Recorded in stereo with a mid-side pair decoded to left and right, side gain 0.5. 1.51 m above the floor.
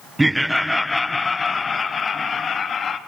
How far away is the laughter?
About 0.9 m.